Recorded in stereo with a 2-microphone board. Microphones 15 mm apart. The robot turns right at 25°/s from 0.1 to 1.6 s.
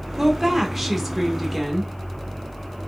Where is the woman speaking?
20° right, 1.0 m; by 1.9 s 15° left, 1.0 m.